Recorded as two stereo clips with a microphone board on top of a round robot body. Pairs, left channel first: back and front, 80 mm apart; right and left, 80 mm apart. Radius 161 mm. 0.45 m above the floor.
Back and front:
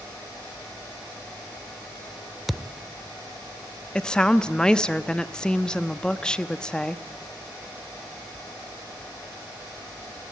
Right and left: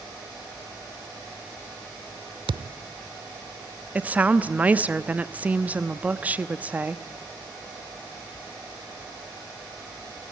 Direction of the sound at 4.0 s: 115° left.